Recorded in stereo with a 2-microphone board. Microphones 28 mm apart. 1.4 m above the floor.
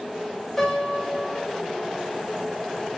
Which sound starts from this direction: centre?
A piano, at 0.6 s.